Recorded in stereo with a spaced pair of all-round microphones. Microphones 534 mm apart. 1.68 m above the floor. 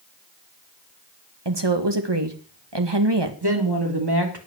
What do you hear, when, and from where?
1.4 s a woman speaking: 50° right (ahead or behind), 2 m
3.4 s a woman speaking: 45° right (ahead or behind), 3 m